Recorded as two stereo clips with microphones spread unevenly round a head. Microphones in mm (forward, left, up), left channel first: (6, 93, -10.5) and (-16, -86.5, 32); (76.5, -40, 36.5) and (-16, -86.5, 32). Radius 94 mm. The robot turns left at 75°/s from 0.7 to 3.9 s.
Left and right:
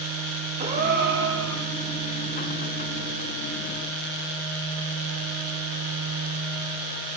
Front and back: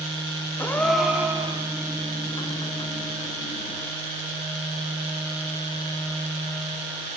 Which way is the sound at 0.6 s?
45° right.